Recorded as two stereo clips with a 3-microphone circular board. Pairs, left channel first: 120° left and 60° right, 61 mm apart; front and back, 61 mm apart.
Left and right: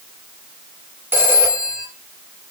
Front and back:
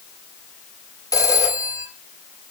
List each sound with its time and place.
1.1 s a phone ringing: 10° right, 4 m